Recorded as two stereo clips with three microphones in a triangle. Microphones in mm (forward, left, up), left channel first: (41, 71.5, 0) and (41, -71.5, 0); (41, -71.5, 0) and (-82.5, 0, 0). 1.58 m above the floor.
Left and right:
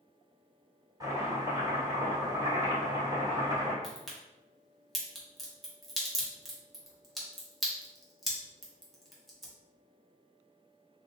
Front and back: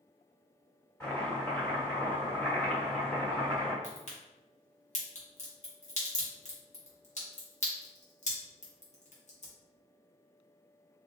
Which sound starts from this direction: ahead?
A crack, at 3.8 s.